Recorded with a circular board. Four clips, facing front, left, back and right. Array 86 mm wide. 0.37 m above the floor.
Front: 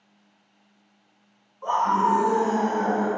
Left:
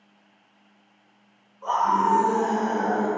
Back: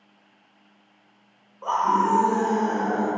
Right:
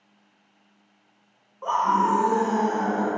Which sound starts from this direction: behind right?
A scream, at 1.6 s.